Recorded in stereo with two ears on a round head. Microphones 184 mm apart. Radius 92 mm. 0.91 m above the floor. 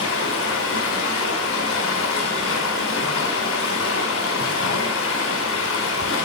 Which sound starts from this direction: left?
Running water, at 0.0 s.